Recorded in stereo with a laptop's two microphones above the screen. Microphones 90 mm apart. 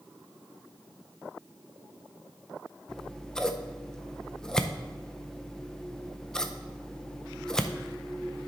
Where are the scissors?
5° left (ahead or behind), 0.6 m.